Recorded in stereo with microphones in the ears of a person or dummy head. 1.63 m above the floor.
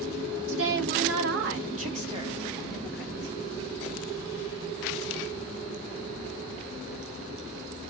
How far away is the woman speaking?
About 1.0 m.